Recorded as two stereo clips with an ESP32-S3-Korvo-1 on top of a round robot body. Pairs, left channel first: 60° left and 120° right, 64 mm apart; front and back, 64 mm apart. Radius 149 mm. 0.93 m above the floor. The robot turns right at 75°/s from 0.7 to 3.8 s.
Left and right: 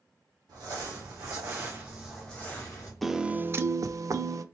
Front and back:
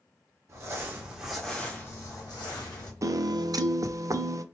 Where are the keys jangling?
I don't hear keys jangling.